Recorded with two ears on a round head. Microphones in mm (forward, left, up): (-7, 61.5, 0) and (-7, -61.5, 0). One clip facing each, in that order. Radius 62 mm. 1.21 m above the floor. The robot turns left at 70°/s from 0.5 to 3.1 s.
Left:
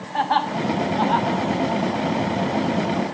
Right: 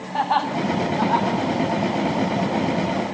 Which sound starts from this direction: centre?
Laughter, at 0.1 s.